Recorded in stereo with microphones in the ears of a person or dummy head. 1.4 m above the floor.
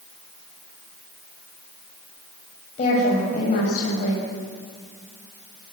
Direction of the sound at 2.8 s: 40° left (ahead or behind).